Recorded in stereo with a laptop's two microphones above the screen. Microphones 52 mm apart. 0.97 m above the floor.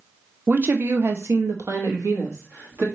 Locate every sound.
0.5 s a woman speaking: 35° right (ahead or behind), 0.7 m; by 2.9 s 70° right (ahead or behind), 1.5 m